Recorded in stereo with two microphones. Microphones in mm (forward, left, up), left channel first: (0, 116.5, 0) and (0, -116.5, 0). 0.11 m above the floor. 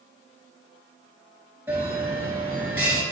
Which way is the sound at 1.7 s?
5° right (ahead or behind).